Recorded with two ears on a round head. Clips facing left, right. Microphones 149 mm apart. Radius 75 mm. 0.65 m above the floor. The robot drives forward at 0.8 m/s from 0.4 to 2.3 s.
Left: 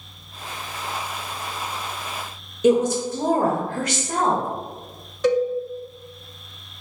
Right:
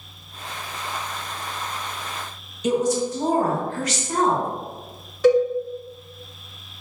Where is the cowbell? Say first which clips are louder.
Right 3 dB; 5° right (ahead or behind), 0.7 m.